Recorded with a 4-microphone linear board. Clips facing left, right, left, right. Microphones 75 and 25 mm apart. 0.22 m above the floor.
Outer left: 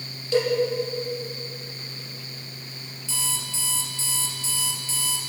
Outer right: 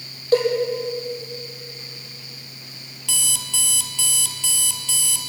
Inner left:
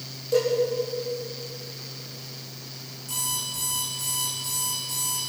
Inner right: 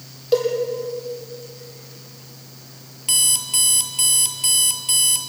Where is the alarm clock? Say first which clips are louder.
Outer right 2 dB, inner right 10 dB; 75° right (ahead or behind), 2.0 m.